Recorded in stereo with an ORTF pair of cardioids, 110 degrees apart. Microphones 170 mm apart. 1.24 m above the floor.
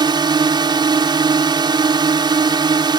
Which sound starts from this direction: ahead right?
A drone, at 0.0 s.